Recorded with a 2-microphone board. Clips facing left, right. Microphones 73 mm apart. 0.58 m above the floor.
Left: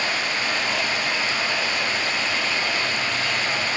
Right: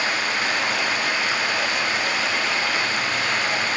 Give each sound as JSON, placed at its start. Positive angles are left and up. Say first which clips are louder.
{"t": 0.0, "sound": "running water", "louder": "right 2 dB", "side_deg": -55, "distance_m": 4.0}